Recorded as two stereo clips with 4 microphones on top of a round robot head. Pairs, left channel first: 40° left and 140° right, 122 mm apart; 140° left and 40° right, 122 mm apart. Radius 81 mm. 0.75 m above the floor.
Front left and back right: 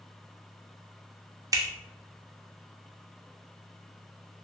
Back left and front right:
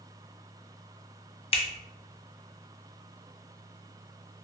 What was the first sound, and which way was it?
A finger snap, 165° left.